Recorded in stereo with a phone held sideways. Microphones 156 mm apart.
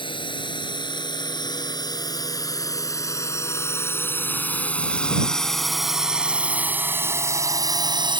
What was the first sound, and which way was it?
A drone, 30° left (ahead or behind).